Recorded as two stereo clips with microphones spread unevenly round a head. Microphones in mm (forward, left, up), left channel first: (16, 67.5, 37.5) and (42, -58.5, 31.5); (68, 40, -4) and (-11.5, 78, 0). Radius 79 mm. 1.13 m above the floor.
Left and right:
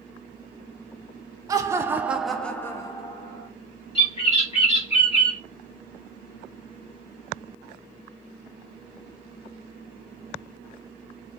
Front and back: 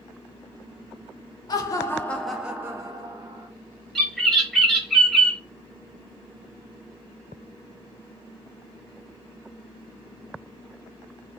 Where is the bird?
60° left, 1.3 m.